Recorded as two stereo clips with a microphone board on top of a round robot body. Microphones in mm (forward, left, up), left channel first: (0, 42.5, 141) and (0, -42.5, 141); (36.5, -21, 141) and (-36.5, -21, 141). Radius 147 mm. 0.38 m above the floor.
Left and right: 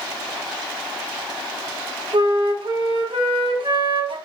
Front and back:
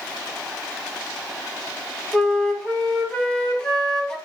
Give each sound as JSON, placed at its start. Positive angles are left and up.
{"t": 2.1, "sound": "a flute", "azimuth_deg": -80, "distance_m": 2.5}